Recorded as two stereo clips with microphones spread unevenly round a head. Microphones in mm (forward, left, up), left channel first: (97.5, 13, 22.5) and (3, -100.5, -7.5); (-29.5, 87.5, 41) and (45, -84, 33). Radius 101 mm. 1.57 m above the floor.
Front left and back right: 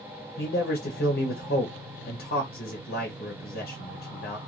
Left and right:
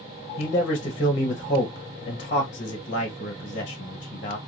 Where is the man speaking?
60° left, 0.7 m.